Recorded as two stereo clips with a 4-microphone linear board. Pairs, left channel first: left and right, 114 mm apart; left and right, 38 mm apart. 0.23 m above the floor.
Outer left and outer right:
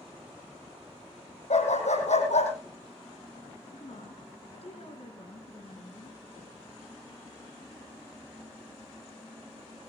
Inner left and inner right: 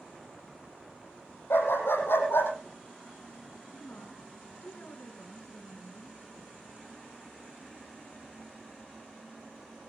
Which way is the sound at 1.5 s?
85° left.